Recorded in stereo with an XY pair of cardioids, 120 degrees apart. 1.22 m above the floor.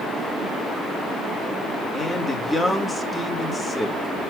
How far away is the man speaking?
About 2.5 m.